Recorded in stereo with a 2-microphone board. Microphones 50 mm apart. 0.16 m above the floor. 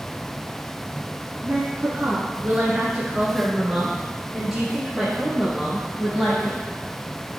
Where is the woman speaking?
40° right (ahead or behind), 1.3 m; by 6.6 s 5° left (ahead or behind), 3.5 m.